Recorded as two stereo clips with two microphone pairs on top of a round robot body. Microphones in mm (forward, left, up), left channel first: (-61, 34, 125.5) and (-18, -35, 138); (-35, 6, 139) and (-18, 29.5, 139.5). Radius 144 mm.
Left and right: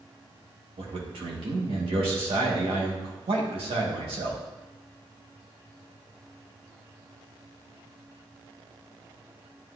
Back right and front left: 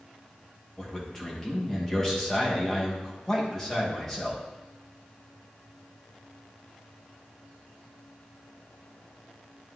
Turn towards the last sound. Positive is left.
turn(degrees=-50)